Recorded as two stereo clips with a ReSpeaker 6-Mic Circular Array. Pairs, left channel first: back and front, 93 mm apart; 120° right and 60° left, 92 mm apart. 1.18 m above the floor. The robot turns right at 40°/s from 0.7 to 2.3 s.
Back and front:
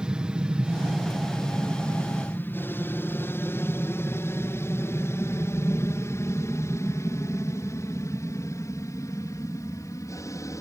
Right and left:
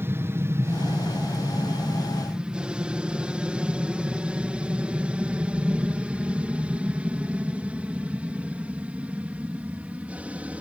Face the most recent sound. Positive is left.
turn(degrees=135)